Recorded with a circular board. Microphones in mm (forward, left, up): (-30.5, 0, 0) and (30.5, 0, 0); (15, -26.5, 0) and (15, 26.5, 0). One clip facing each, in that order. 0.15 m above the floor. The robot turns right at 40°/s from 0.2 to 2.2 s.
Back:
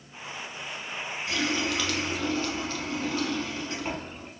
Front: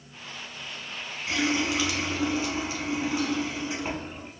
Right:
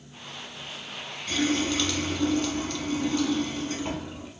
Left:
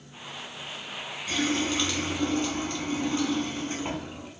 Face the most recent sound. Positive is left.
turn(degrees=60)